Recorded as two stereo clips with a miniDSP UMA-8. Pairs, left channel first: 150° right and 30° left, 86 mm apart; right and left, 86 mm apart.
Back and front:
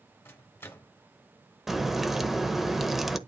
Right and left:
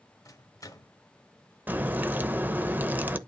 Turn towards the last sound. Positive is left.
turn(degrees=110)